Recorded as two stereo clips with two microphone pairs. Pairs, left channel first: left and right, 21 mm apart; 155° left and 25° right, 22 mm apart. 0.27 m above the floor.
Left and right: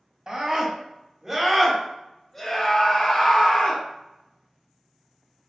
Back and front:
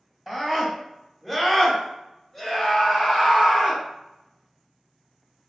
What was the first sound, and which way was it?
A scream, 115° right.